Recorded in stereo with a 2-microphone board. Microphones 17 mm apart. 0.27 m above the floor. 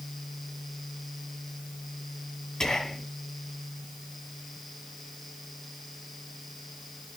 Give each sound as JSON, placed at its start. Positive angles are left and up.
{"t": 2.6, "sound": "whispering", "side_deg": 40, "distance_m": 1.9}